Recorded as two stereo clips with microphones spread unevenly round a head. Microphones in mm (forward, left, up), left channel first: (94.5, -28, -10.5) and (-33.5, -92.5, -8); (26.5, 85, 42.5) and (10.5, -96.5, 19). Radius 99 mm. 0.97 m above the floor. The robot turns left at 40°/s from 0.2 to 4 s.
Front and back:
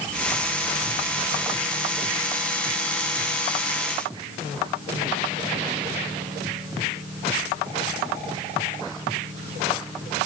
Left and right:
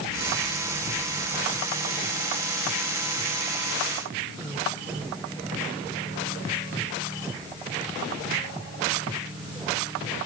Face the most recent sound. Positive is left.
No sound to turn to.